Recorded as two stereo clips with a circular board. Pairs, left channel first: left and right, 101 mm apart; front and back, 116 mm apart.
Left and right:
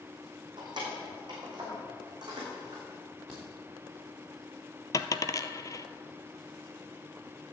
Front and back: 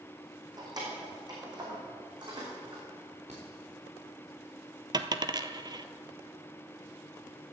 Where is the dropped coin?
135° left, 0.6 m.